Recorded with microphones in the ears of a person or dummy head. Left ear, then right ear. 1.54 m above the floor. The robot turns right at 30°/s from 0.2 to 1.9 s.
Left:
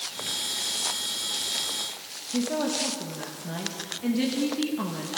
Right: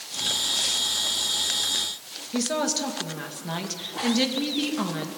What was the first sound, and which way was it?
A woman speaking, 45° right (ahead or behind).